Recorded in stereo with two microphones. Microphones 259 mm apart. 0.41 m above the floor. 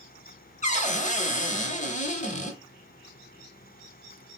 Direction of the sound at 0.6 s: 30° left (ahead or behind).